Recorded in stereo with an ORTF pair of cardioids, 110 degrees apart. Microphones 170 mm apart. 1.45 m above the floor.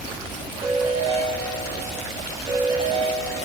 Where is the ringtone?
25° right, 4 m.